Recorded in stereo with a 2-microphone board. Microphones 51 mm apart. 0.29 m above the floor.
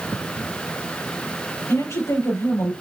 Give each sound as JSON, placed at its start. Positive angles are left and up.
{"t": 1.7, "sound": "a woman speaking", "side_deg": 75, "distance_m": 4.5}